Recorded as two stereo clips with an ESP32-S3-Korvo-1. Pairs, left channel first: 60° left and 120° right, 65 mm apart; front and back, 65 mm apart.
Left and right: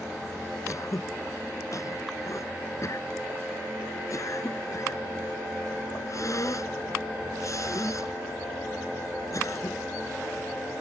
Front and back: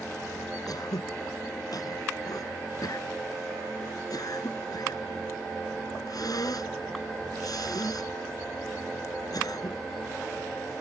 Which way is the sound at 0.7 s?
20° left.